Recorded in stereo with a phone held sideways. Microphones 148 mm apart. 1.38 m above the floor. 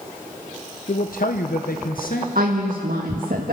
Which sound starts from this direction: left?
A man speaking, at 0.9 s.